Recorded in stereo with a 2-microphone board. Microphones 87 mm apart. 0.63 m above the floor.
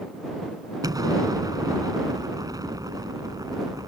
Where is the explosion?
45° right (ahead or behind).